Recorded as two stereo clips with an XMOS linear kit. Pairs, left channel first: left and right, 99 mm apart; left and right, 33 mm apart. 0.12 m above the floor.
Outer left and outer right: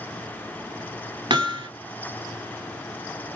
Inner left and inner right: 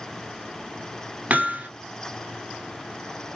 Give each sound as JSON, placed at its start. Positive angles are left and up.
{"t": 1.3, "sound": "hammering", "side_deg": -50, "distance_m": 1.2}